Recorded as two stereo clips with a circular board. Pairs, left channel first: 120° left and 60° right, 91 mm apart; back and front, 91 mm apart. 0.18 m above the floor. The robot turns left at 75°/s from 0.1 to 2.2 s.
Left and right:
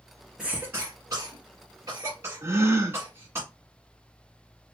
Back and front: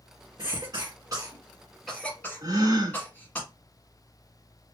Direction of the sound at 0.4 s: 25° left.